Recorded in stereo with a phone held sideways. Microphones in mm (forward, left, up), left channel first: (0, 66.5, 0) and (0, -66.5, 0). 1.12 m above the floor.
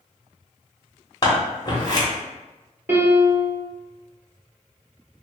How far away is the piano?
About 1.0 m.